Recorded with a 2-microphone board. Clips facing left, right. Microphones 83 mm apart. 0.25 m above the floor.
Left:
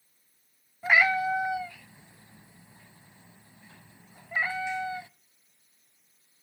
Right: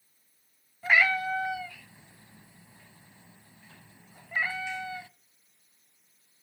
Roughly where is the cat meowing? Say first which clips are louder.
Left 2 dB; centre.